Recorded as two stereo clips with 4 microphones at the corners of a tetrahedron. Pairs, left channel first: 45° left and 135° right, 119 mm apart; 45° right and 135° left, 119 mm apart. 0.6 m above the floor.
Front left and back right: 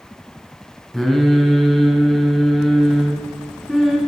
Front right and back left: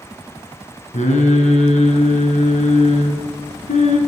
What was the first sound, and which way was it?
Singing, 45° right.